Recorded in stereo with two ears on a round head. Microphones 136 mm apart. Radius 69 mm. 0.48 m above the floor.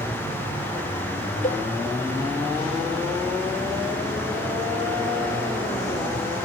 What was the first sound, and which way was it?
A cowbell, 55° left (ahead or behind).